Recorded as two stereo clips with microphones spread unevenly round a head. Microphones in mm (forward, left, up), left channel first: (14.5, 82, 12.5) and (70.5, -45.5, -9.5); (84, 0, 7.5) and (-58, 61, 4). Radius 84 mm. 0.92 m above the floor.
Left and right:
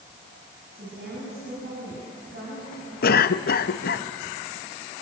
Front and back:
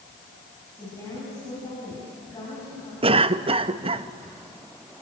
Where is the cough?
105° left, 0.8 m.